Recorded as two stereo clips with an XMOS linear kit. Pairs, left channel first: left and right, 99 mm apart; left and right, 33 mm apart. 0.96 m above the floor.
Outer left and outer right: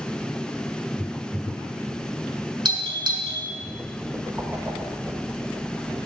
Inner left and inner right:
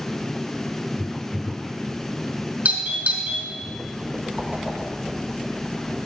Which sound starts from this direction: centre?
A whoosh, at 4.4 s.